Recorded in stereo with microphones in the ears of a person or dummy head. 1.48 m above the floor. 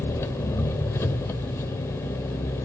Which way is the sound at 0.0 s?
15° left (ahead or behind).